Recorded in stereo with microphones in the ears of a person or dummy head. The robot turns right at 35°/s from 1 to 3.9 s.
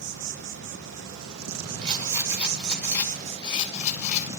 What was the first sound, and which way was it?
An insect, 115° right.